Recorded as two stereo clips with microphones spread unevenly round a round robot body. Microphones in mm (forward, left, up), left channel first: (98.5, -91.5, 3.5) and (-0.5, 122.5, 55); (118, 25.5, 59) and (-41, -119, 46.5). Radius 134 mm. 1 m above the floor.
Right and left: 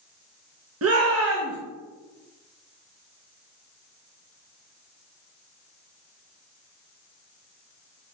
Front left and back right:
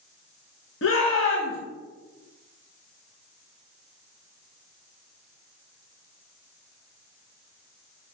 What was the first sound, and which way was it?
A shout, 80° left.